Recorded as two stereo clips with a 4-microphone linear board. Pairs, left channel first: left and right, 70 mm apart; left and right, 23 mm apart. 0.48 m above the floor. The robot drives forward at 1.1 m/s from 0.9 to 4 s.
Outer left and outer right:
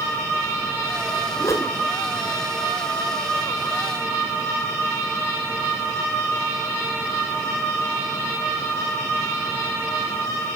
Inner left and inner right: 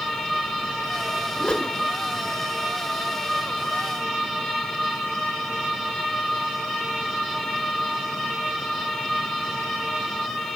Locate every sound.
1.4 s a whoosh: 55° left (ahead or behind), 1.0 m; by 1.7 s 40° left (ahead or behind), 1.3 m